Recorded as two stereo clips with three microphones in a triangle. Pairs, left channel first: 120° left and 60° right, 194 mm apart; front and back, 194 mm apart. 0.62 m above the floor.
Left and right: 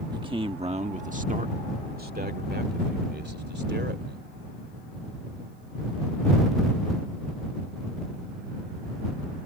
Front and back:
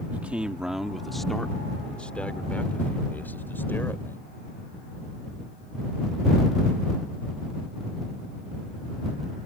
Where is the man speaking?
105° right; by 4.2 s 80° right.